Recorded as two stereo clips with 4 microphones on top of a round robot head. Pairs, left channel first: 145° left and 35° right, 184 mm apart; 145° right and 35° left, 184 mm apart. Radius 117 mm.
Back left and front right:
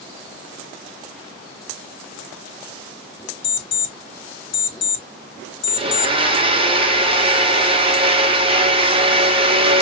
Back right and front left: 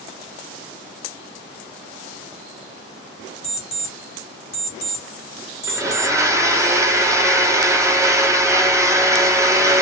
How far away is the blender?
About 1.0 m.